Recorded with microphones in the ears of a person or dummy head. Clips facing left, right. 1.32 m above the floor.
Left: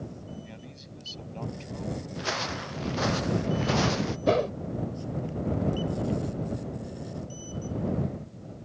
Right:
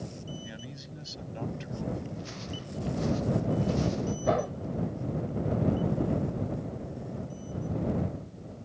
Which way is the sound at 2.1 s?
75° left (ahead or behind).